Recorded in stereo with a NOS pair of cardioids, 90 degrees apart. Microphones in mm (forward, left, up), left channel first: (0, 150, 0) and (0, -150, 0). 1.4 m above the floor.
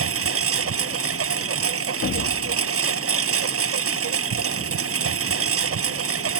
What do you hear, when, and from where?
0.0 s a lawn mower: 50° right
2.0 s an explosion: 45° left